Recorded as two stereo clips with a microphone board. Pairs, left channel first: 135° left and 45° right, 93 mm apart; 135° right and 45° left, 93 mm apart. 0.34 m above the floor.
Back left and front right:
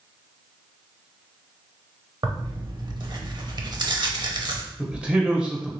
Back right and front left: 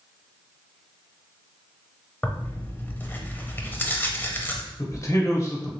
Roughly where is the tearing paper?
Right.